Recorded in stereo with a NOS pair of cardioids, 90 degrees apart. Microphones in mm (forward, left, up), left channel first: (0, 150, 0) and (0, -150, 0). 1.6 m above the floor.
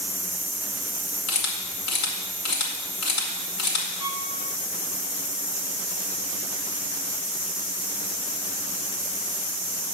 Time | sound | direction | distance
1.3 | a camera shutter | 70° left | 2 m
4.0 | a violin | 50° left | 1.2 m